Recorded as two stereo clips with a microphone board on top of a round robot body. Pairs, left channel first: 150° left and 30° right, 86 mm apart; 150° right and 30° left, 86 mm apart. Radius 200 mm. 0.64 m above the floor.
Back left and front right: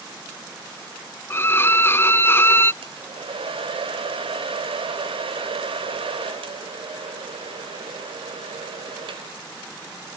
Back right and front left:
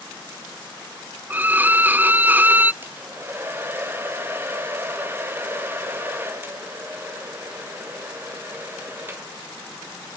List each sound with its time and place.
1.3 s a violin: 95° left, 0.5 m
2.8 s a hair dryer: 35° right, 2.5 m